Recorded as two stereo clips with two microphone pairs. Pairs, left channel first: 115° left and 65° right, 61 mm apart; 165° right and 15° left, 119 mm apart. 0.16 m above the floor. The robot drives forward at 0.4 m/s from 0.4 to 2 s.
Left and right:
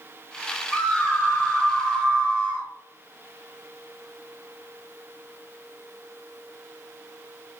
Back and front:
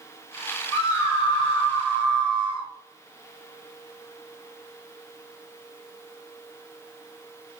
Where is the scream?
175° left, 1.8 m.